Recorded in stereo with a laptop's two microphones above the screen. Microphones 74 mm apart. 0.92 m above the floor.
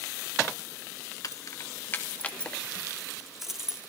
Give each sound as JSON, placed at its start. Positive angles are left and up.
{"t": 1.2, "sound": "keys jangling", "side_deg": 50, "distance_m": 0.9}